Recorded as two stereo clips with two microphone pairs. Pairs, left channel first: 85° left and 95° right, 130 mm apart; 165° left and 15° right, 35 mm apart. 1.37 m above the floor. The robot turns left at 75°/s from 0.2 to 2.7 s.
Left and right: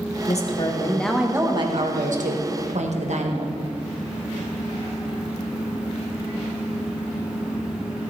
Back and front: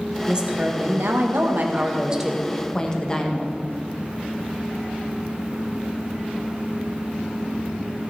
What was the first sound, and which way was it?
A woman speaking, 60° left.